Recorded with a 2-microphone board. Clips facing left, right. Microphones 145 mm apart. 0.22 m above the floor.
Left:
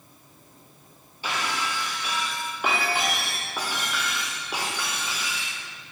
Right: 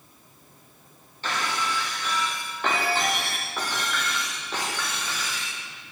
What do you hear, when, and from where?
1.2 s breaking glass: 10° left (ahead or behind), 8 m